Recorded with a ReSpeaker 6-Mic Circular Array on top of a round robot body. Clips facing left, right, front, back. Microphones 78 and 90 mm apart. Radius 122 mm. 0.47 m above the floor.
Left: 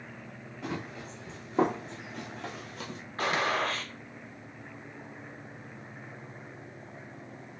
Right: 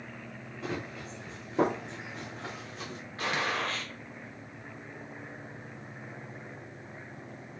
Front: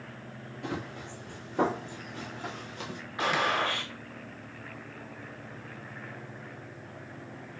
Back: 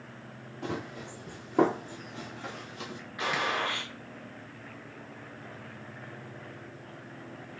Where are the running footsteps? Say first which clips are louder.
Even, back 1 dB; 170° left, 1.3 m; by 3.0 s 45° left, 0.8 m.